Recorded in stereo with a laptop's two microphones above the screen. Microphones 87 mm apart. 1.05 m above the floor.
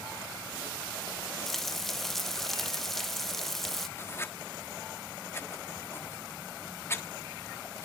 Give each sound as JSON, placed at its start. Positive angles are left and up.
{"t": 1.5, "sound": "frying", "side_deg": 5, "distance_m": 0.9}
{"t": 4.0, "sound": "writing", "side_deg": 30, "distance_m": 1.3}